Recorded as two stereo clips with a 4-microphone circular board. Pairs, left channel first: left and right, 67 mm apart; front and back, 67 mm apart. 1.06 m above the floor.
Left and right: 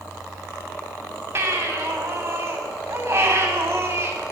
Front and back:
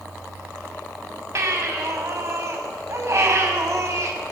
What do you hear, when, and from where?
1.4 s a baby crying: 140° right, 5 m